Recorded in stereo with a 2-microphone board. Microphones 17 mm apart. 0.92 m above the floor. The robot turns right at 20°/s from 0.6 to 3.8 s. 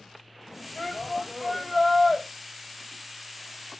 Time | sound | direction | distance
0.8 | a shout | 45° left (ahead or behind) | 5.5 m